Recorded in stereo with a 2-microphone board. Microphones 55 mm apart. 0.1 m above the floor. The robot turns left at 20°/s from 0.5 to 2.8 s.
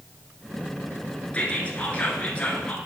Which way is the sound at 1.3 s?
25° left (ahead or behind).